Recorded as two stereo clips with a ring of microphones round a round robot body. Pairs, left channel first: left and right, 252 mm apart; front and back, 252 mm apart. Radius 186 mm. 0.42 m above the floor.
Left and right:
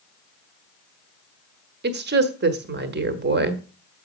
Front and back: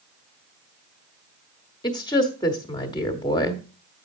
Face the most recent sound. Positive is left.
turn(degrees=-70)